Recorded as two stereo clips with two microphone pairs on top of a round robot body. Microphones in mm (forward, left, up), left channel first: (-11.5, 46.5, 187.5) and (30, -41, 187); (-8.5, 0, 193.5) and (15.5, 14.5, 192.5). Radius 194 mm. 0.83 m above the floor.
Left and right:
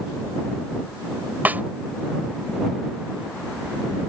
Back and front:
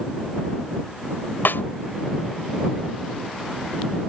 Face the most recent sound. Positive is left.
turn(degrees=-140)